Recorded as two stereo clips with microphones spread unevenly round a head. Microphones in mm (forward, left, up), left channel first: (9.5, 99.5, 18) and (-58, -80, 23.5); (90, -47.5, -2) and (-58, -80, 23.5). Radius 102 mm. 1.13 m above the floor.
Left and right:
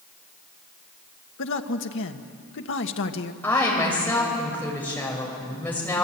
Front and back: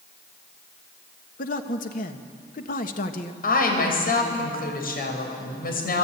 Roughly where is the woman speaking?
Ahead.